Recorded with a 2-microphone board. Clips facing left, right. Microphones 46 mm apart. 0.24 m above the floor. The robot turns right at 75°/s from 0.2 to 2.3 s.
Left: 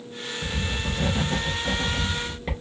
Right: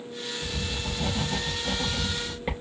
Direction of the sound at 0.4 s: 45° left.